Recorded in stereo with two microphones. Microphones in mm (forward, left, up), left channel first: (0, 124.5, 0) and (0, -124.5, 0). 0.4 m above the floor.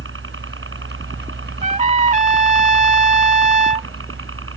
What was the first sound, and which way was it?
A helicopter, 50° right (ahead or behind).